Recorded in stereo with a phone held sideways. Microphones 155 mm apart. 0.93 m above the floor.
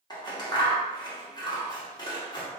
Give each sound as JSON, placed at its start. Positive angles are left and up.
{"t": 0.1, "sound": "scissors", "side_deg": 25, "distance_m": 1.0}